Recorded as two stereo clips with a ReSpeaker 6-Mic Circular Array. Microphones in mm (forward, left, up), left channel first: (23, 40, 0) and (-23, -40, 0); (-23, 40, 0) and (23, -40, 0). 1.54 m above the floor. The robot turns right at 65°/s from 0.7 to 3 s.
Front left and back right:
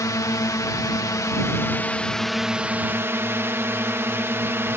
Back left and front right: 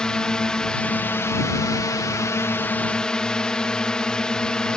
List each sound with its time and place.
0.0 s a drone: 45° left; by 4.8 s 165° right